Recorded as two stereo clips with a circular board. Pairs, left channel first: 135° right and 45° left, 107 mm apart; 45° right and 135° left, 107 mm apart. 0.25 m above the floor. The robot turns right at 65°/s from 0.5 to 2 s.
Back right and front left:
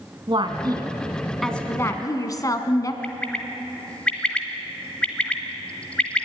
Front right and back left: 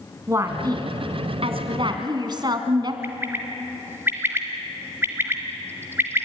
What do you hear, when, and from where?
0.3 s a woman speaking: 75° left, 2 m; by 2.9 s 175° left, 2 m
3.0 s a bird: 160° left, 1.6 m